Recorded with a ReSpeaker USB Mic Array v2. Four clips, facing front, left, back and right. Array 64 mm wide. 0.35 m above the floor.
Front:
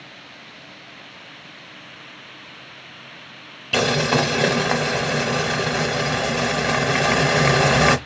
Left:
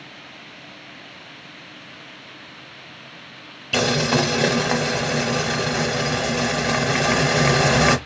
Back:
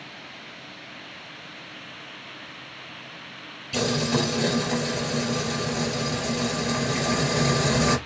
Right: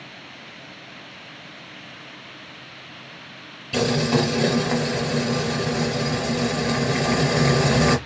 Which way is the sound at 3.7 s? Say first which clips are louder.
Left 1 dB, front 5 dB; 30° left.